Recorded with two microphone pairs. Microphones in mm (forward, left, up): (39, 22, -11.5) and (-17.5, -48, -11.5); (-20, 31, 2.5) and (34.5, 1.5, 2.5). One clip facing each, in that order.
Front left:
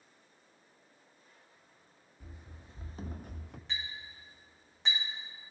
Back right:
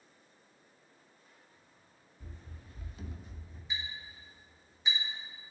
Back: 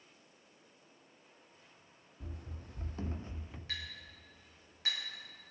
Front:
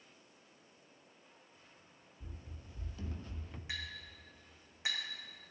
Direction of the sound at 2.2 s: 130° left.